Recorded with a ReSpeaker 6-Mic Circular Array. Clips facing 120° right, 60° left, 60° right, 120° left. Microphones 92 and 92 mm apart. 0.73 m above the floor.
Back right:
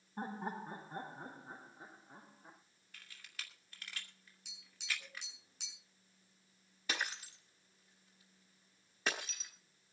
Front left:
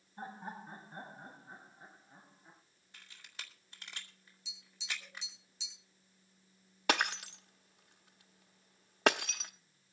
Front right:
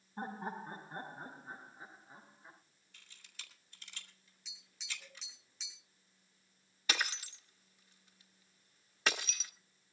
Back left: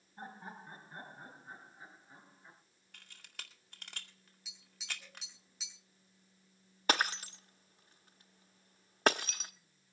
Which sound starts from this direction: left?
Breaking glass, at 6.9 s.